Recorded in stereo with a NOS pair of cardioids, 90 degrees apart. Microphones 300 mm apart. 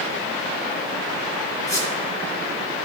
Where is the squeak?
10° left, 3 m.